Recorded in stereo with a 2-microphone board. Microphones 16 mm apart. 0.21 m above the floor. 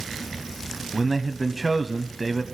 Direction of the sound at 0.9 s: 20° right (ahead or behind).